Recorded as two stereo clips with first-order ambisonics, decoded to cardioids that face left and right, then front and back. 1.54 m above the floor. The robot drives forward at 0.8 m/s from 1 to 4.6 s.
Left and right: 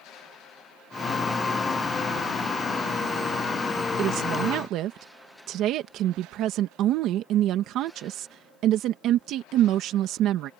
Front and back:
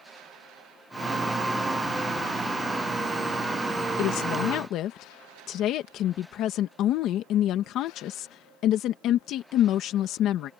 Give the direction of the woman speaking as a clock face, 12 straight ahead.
1 o'clock.